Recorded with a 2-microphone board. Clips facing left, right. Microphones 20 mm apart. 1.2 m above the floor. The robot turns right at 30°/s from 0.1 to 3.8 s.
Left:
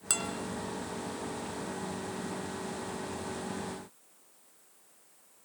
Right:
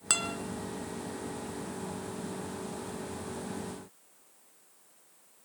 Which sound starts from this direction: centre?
A guitar, at 0.1 s.